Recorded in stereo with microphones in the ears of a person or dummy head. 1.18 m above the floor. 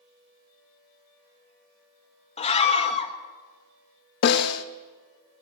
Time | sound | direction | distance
2.4 | a scream | 30° left (ahead or behind) | 1.8 m
4.2 | a snare drum | 60° left (ahead or behind) | 0.9 m